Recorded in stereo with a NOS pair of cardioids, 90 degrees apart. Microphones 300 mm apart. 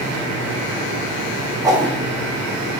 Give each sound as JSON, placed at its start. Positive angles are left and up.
{"t": 1.6, "sound": "a whoosh", "azimuth_deg": -10, "distance_m": 1.1}